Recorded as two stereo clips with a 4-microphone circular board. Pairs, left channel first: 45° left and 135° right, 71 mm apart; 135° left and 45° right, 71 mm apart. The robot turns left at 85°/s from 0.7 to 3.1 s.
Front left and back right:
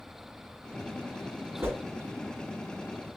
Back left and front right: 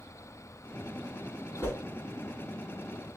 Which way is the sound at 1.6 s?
170° right.